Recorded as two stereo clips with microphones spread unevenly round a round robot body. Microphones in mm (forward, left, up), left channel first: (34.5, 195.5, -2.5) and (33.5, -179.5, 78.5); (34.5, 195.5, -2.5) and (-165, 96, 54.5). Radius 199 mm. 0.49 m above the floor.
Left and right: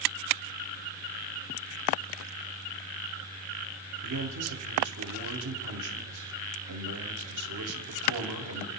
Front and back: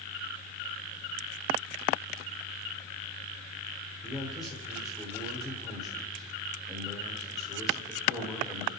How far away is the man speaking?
About 1.5 m.